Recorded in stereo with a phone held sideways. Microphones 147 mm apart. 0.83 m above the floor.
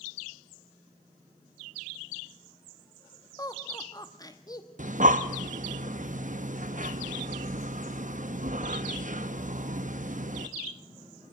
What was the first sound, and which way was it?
Laughter, 25° left (ahead or behind).